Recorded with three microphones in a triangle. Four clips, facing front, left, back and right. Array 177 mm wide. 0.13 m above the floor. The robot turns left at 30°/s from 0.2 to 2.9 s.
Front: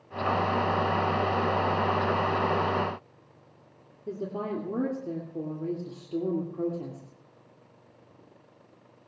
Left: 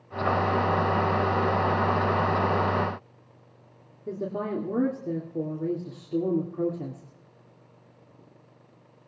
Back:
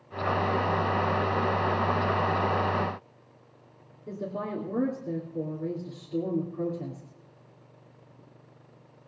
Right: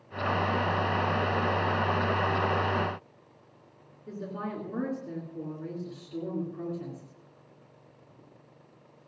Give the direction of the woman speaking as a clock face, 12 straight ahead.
9 o'clock.